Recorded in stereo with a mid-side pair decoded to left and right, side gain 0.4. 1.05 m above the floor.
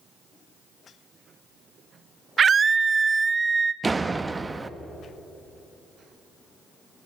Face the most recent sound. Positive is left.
turn(degrees=-25)